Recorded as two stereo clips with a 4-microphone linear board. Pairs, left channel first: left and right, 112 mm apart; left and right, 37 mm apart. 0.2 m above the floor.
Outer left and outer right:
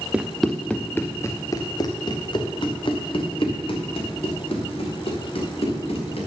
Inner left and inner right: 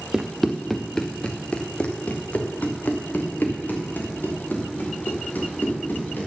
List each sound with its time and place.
0.1 s running footsteps: 10° right (ahead or behind), 1.0 m; by 6.3 s 70° left (ahead or behind), 4 m